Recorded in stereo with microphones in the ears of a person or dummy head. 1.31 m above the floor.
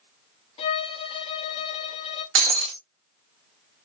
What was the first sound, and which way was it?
A violin, 30° left (ahead or behind).